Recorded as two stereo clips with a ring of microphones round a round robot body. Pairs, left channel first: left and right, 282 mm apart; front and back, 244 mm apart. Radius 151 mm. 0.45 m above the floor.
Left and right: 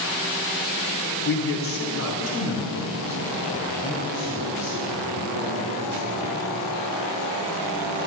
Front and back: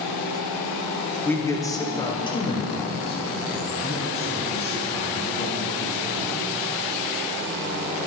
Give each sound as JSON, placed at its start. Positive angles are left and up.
{"t": 1.2, "sound": "a man speaking", "azimuth_deg": 80, "distance_m": 1.0}